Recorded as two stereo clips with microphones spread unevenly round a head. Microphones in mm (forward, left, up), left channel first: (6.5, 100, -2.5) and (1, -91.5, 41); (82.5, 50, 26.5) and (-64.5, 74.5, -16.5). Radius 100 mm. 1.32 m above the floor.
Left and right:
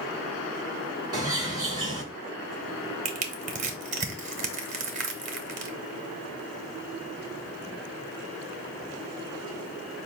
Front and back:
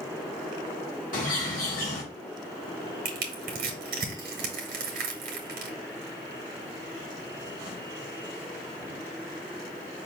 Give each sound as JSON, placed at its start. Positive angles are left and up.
{"t": 1.1, "sound": "a bird", "azimuth_deg": -25, "distance_m": 1.8}
{"t": 3.0, "sound": "crushing", "azimuth_deg": -145, "distance_m": 0.9}